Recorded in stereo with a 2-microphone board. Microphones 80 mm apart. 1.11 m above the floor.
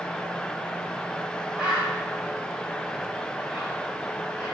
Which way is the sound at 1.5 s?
20° right (ahead or behind).